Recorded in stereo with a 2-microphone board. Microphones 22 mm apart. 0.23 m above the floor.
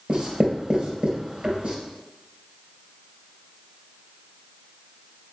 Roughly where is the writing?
Right.